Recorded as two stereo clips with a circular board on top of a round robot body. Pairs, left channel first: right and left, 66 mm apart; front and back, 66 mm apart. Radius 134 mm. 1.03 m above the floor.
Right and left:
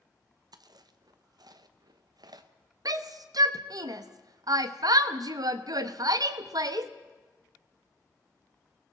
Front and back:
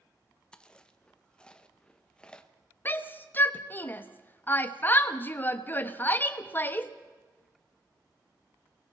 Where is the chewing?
75° left, 1.0 m.